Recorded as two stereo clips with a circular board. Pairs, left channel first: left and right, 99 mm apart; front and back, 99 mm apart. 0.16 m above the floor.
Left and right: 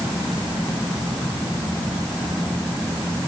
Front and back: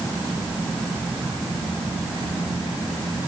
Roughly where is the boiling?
No boiling in this recording.